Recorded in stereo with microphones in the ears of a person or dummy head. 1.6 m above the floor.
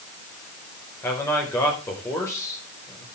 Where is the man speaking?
20° left (ahead or behind), 5.5 m.